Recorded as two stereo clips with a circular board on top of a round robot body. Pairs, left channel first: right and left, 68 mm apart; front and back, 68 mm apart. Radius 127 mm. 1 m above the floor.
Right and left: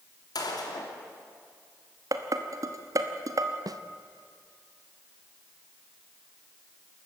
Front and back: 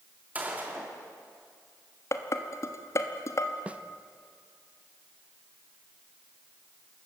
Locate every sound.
0.3 s a gunshot: 110° right, 3 m
2.1 s dishes clattering: 50° left, 1.1 m
3.7 s a snare drum: 110° left, 0.8 m